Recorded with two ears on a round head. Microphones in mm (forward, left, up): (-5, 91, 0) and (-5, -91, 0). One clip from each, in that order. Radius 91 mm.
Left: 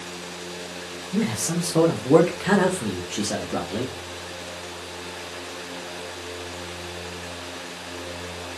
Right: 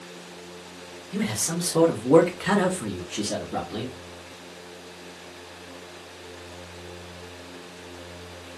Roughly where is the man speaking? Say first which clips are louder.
Left 2 dB; right.